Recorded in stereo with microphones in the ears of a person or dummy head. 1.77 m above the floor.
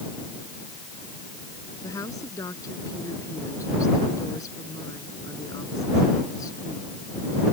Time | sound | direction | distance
1.8 | a woman speaking | 20° left (ahead or behind) | ?